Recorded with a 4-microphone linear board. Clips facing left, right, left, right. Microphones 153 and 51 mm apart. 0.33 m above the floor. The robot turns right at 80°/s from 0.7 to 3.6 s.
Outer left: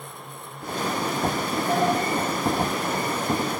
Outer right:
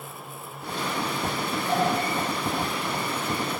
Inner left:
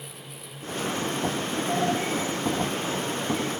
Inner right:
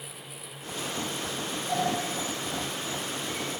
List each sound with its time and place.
1.7 s a sliding door: 55° left (ahead or behind), 4 m; by 1.9 s 40° left (ahead or behind), 4 m